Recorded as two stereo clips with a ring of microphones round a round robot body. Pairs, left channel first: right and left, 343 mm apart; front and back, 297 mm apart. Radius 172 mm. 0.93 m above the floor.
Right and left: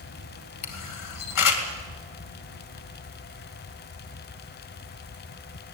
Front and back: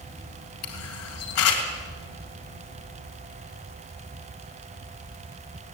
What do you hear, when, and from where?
0.6 s a camera shutter: 55° right, 2.5 m